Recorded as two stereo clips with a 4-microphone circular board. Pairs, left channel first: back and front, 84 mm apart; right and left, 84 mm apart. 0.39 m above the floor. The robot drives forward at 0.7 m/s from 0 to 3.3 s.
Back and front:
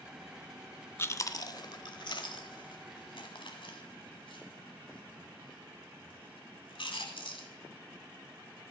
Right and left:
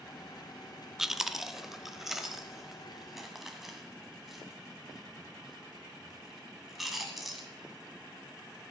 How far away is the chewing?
About 0.6 m.